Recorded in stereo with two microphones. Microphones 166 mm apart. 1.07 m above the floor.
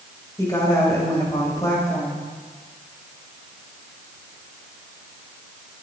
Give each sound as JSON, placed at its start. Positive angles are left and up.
{"t": 0.4, "sound": "a woman speaking", "side_deg": 20, "distance_m": 6.0}